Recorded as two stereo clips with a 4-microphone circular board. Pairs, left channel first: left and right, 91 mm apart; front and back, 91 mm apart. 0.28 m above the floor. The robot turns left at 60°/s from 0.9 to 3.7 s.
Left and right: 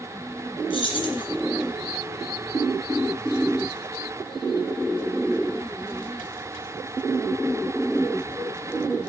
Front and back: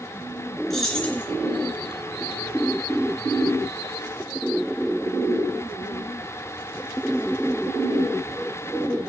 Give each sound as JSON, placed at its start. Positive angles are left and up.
{"t": 0.7, "sound": "keys jangling", "azimuth_deg": 85, "distance_m": 2.5}